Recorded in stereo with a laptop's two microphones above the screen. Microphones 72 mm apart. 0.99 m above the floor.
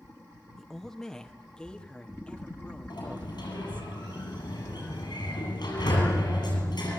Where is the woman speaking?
Centre (ahead or behind), 1.1 m; by 3.9 s 15° left (ahead or behind), 3.5 m.